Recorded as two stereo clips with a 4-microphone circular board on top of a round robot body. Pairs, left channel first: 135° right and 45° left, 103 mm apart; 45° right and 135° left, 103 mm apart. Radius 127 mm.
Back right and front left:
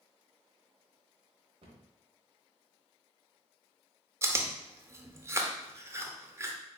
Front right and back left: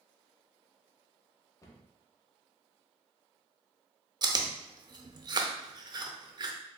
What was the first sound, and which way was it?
A cupboard door, 15° left.